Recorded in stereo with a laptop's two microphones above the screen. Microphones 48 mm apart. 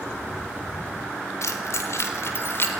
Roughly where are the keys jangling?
Left.